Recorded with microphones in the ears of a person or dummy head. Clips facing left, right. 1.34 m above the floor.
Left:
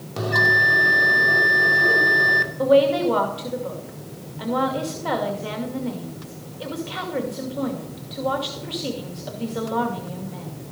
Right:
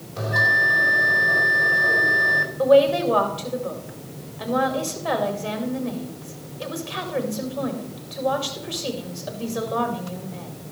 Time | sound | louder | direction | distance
0.2 | a bell | left 3 dB | 70° left (ahead or behind) | 2 m
2.6 | a woman speaking | right 1 dB | 5° left (ahead or behind) | 2 m